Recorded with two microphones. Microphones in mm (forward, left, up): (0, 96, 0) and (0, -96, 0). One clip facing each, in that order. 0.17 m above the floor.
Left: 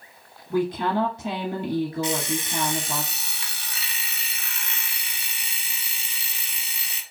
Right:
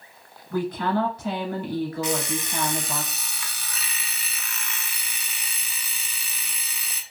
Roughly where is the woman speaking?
Left.